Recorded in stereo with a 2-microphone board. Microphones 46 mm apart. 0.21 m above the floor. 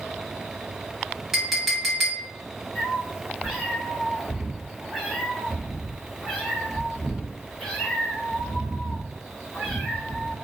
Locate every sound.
1.3 s a clink: 5° right (ahead or behind), 1.0 m
2.8 s a cat meowing: centre (ahead or behind), 1.3 m